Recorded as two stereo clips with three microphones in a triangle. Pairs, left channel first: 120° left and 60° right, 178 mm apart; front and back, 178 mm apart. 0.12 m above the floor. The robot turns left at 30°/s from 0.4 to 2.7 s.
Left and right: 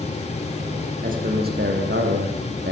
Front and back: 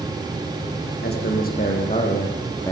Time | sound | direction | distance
1.0 | a man speaking | 20° right | 6 m